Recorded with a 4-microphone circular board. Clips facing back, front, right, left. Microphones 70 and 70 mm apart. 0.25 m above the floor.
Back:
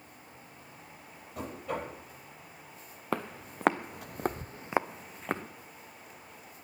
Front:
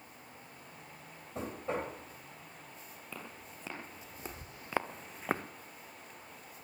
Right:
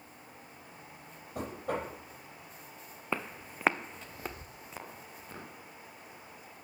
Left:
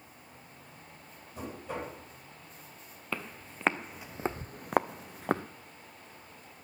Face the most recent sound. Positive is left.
turn(degrees=85)